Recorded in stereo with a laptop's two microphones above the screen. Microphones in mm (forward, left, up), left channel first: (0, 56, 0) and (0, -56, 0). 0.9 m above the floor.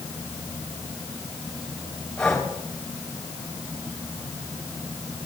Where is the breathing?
5° left (ahead or behind), 4 m.